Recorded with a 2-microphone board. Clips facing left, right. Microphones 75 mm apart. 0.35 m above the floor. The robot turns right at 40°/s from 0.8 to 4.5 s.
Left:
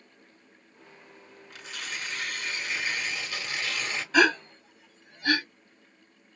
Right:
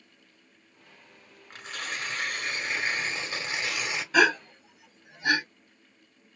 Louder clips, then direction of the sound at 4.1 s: Even; 5° right (ahead or behind).